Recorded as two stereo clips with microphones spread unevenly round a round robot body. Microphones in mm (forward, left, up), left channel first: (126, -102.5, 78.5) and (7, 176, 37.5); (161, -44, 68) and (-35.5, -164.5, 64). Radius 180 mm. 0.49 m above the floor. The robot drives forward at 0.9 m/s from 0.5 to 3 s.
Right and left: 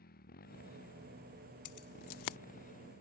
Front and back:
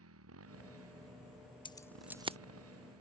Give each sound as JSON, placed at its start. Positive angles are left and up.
{"t": 0.0, "sound": "a motorcycle", "azimuth_deg": -135}
{"t": 1.6, "sound": "keys jangling", "azimuth_deg": -40}